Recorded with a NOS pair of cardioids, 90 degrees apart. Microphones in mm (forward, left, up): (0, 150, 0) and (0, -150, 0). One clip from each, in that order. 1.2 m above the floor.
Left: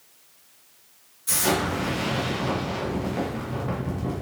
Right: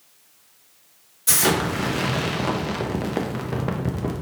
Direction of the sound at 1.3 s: 50° right.